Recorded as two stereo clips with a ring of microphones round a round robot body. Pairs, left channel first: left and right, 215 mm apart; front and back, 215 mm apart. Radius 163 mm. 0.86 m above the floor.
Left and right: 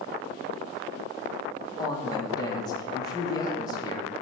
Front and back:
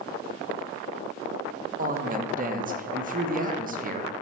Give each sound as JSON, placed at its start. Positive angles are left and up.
{"t": 1.8, "sound": "a woman speaking", "azimuth_deg": 155, "distance_m": 0.7}